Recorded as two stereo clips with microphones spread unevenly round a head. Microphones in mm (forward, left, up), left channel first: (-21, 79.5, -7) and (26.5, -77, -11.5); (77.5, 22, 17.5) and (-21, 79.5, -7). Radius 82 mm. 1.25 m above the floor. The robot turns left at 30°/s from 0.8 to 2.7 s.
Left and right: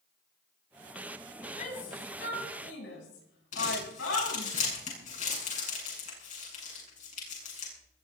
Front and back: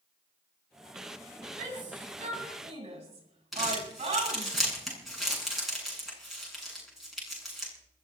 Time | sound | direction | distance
1.6 | a shout | 155° left | 8 m
3.5 | crumpling | 60° left | 9 m